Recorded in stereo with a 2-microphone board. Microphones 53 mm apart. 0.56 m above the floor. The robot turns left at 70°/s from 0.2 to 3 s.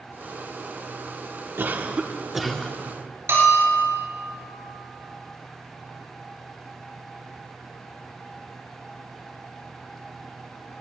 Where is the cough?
120° right, 0.8 m; by 2.8 s 160° left, 0.8 m.